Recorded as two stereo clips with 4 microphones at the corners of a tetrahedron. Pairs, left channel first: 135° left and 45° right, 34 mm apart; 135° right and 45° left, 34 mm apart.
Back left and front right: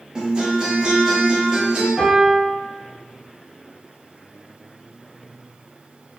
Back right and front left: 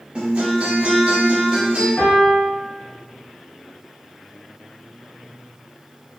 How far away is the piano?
About 1.8 m.